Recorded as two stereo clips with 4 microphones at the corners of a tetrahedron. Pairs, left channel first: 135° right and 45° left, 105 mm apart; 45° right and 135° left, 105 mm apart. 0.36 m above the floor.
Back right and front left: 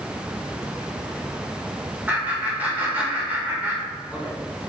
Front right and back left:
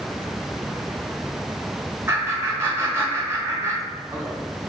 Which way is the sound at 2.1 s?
100° left.